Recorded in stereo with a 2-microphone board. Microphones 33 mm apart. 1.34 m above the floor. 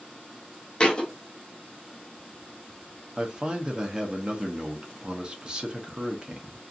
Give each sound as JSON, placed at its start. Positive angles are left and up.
{"t": 0.8, "sound": "a thud", "side_deg": 30, "distance_m": 0.6}
{"t": 3.2, "sound": "a man speaking", "side_deg": -25, "distance_m": 0.7}